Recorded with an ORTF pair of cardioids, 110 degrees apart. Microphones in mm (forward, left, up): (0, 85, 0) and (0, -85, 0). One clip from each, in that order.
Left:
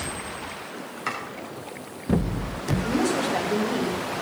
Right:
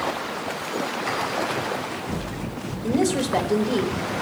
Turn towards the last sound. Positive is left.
turn(degrees=-30)